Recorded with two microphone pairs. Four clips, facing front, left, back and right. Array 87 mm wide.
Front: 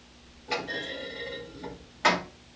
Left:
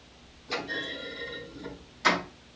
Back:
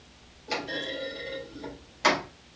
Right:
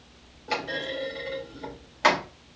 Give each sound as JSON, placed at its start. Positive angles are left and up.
{"t": 0.5, "sound": "a clunk", "azimuth_deg": -80, "distance_m": 3.0}